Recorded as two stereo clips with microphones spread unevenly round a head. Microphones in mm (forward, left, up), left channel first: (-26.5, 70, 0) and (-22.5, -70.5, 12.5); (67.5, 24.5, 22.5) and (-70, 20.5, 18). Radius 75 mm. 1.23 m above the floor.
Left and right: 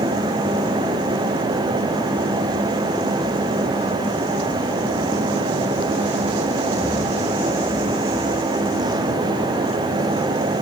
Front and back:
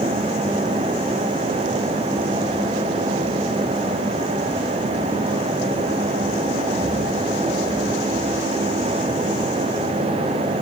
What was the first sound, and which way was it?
Only background noise.